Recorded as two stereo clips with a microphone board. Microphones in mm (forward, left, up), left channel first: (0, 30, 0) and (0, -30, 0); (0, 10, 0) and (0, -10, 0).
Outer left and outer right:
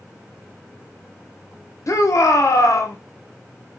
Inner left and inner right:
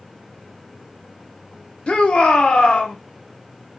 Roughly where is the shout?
Left.